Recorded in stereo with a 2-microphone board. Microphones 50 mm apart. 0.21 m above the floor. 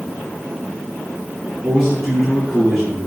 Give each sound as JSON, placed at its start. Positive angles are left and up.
{"t": 1.6, "sound": "a man speaking", "side_deg": -35, "distance_m": 3.0}